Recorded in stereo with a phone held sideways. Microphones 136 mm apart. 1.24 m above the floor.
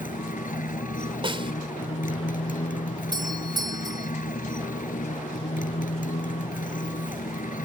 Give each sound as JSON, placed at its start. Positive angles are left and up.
{"t": 0.0, "sound": "a motorcycle", "side_deg": 85}
{"t": 1.2, "sound": "a snare drum", "side_deg": -40}
{"t": 3.1, "sound": "a doorbell", "side_deg": -30}